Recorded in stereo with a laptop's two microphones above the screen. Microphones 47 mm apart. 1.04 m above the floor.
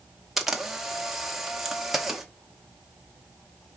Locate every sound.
0.4 s a camera shutter: 5° right (ahead or behind), 0.8 m